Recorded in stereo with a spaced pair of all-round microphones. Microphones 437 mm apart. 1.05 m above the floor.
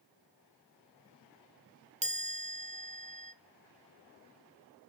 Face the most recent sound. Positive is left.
turn(degrees=-15)  # may be behind; listen again after turning